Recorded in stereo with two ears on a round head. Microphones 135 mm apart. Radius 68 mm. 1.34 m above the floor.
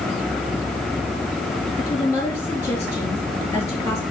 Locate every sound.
1.8 s a woman speaking: 15° left (ahead or behind), 3 m